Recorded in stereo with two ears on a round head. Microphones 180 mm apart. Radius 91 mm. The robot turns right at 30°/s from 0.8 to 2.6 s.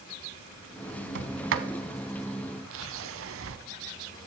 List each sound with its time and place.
1.1 s a sliding door: 60° right (ahead or behind), 1.2 m; by 3.6 s 65° right (ahead or behind), 1.2 m